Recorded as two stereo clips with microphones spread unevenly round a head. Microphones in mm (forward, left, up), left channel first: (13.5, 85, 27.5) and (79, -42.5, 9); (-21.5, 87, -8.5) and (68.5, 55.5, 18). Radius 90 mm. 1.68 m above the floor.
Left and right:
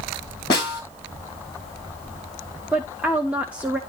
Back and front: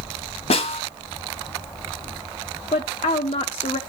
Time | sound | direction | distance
0.5 | a snare drum | 175° right | 2.5 m
2.7 | a woman speaking | 150° right | 0.6 m